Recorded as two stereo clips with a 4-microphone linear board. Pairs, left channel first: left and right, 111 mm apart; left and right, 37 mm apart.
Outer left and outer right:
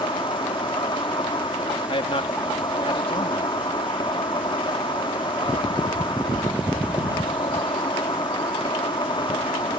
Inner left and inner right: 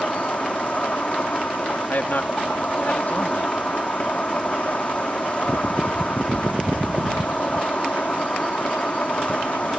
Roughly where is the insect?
Left.